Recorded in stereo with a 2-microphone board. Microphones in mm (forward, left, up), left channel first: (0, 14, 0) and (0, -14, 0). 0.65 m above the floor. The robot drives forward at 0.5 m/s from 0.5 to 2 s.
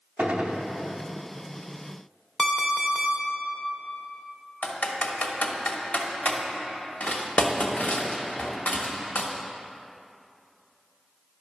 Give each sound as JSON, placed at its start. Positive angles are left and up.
{"t": 0.2, "sound": "a gunshot", "side_deg": -60, "distance_m": 0.8}
{"t": 2.4, "sound": "an alarm clock", "side_deg": 15, "distance_m": 1.0}
{"t": 4.6, "sound": "typing on a keyboard", "side_deg": 70, "distance_m": 1.1}